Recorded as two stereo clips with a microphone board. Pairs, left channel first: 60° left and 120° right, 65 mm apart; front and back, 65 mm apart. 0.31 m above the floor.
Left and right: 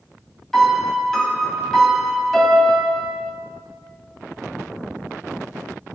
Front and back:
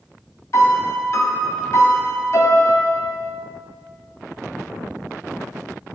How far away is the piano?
About 1.0 m.